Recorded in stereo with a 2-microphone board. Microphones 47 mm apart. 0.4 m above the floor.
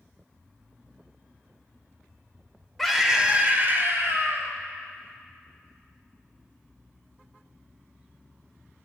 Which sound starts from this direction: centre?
A scream, at 2.8 s.